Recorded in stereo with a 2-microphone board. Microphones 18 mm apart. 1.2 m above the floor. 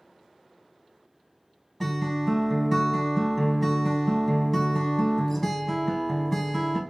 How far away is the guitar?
About 0.8 m.